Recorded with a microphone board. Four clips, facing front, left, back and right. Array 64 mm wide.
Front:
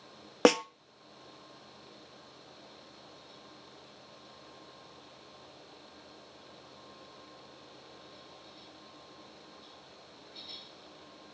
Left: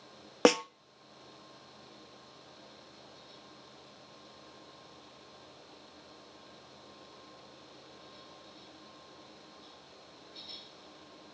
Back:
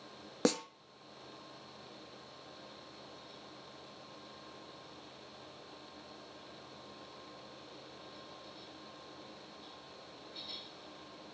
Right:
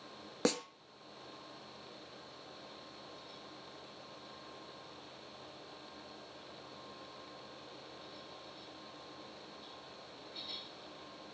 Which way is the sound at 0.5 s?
40° left.